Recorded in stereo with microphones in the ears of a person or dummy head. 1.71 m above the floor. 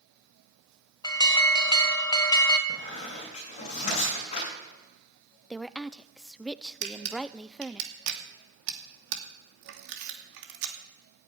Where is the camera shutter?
70° right (ahead or behind), 2.5 m.